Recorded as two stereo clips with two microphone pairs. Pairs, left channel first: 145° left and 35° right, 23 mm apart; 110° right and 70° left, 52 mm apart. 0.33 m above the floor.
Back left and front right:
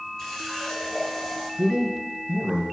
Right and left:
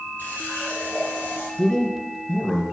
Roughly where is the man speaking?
Ahead right.